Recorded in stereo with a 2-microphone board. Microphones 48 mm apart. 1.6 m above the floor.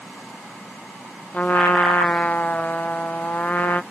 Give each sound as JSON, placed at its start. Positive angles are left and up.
{"t": 1.3, "sound": "a trumpet", "side_deg": 35}